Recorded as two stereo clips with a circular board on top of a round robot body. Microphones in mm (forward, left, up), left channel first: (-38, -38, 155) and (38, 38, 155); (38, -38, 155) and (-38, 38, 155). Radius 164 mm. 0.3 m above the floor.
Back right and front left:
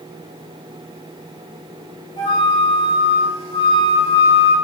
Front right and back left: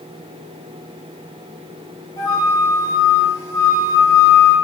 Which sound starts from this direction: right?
A flute, at 2.2 s.